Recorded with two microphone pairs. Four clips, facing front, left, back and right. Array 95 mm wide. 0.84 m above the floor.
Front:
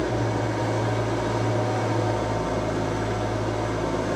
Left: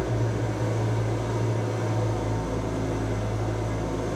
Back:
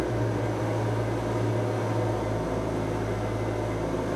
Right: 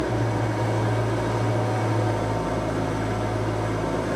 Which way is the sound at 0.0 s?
55° right.